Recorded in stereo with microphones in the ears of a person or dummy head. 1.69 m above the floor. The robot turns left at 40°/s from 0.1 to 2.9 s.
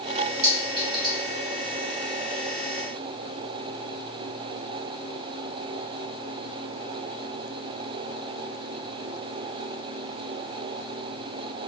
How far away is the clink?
About 1.1 m.